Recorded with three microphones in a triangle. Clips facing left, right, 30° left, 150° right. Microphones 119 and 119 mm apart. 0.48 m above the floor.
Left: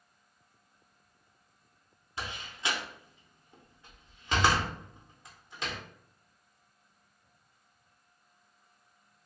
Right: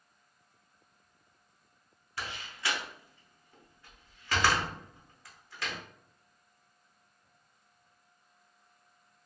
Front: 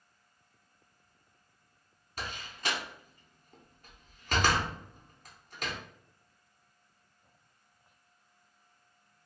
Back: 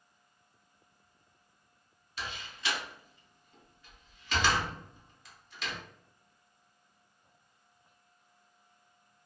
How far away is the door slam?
About 0.5 m.